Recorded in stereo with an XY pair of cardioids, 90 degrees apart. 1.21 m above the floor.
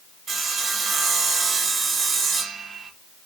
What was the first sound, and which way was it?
Sawing, 65° right.